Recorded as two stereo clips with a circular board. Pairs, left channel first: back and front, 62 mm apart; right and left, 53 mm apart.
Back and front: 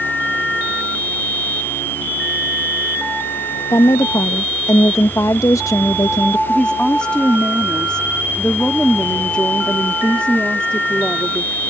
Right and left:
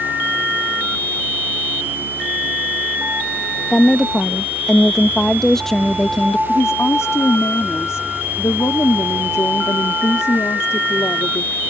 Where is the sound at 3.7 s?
170° right.